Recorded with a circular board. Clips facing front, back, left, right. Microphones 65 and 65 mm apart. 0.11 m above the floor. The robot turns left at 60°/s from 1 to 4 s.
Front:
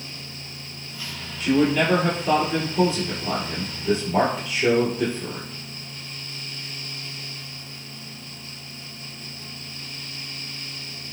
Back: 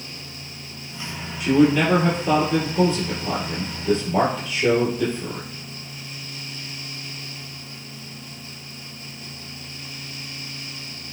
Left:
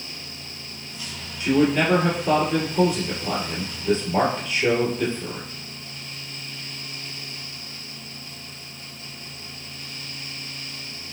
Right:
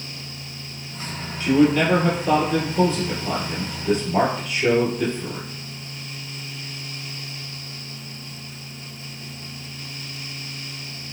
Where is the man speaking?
125° left, 1.4 m; by 5.5 s 35° right, 1.4 m.